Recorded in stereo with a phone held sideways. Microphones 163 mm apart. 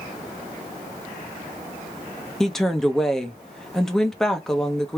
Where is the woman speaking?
5° left (ahead or behind), 1.0 m.